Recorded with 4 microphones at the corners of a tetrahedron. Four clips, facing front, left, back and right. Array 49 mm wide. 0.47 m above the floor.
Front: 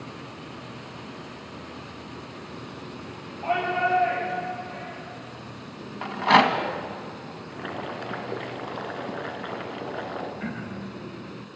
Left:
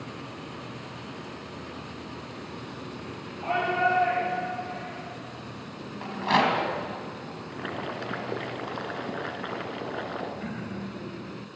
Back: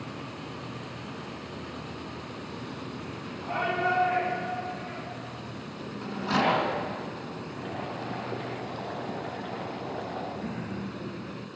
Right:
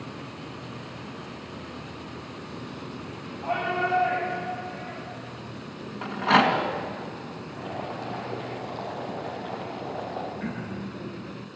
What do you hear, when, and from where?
3.4 s a shout: 25° left, 9.5 m
6.0 s a rattle: 15° right, 3 m
7.5 s boiling: 50° left, 2 m
10.4 s throat clearing: 10° right, 3 m